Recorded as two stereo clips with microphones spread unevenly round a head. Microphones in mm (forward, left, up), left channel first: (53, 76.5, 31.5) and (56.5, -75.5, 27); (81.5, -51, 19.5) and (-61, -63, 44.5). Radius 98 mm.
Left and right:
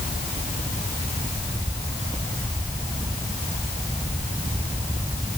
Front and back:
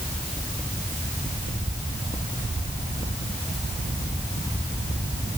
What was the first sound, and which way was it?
Only background noise.